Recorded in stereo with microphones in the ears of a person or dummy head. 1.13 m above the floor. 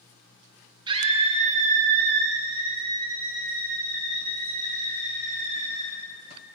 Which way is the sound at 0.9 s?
25° right (ahead or behind).